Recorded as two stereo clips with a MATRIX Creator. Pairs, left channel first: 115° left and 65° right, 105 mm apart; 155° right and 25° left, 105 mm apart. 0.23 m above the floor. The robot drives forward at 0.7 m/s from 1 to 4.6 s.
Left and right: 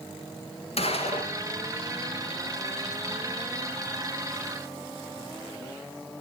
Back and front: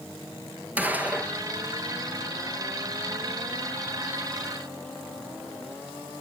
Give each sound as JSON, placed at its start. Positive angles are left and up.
{"t": 0.8, "sound": "a gunshot", "azimuth_deg": 95, "distance_m": 1.4}